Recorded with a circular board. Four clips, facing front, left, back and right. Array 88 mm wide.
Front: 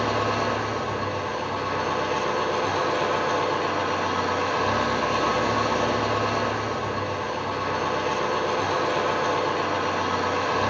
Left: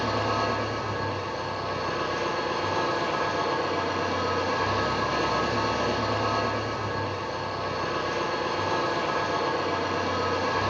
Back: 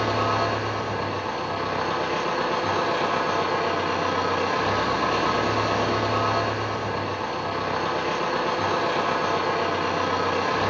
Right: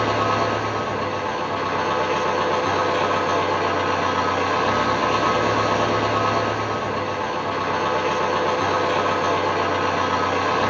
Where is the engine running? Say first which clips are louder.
Right 6 dB, back 1 dB; 95° right, 7.5 m.